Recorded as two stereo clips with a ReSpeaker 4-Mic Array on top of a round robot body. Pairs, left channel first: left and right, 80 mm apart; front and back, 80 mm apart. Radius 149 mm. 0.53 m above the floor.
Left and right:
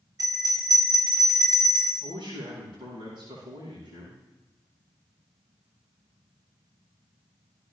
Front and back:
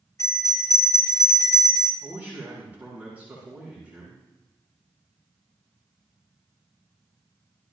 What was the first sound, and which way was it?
A bell, 55° right.